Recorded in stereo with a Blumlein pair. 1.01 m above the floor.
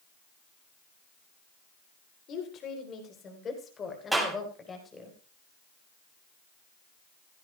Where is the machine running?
I don't hear a machine running.